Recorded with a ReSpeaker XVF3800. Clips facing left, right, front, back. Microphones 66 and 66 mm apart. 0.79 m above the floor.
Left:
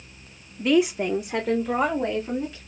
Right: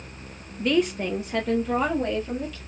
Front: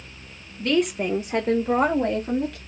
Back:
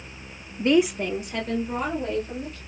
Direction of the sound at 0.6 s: Straight behind.